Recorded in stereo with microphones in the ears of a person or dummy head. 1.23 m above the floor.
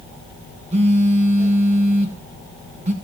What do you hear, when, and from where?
0.7 s a phone buzzing: 30° right (ahead or behind), 1.0 m